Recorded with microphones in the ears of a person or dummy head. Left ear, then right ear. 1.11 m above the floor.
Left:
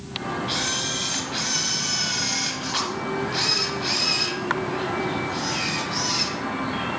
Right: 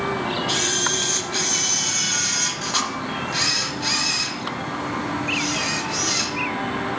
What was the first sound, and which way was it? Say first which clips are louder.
A camera shutter: right 3 dB; 5° right (ahead or behind).